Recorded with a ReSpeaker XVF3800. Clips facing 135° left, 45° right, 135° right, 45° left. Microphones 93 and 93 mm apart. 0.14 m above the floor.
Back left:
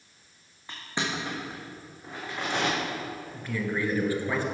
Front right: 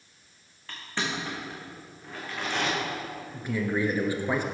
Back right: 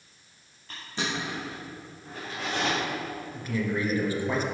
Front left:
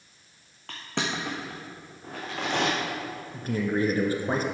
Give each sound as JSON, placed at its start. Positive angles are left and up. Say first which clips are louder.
{"t": 0.7, "sound": "crushing", "louder": "even, front left 2 dB", "azimuth_deg": 60, "distance_m": 2.5}
{"t": 3.3, "sound": "a man speaking", "louder": "front right 3 dB, front left 3 dB", "azimuth_deg": 20, "distance_m": 1.7}